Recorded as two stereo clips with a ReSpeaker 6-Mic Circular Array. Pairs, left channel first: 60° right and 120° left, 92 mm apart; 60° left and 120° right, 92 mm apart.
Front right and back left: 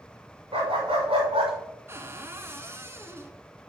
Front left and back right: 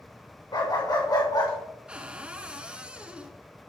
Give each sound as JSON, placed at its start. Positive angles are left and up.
{"t": 0.5, "sound": "a dog barking", "azimuth_deg": 100, "distance_m": 5.0}
{"t": 1.9, "sound": "a cupboard door", "azimuth_deg": 170, "distance_m": 1.3}